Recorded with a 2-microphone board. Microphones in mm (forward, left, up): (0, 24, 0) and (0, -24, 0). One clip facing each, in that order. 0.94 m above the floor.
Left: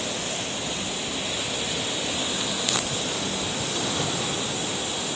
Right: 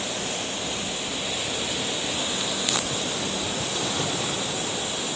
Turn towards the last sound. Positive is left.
No sound to turn to.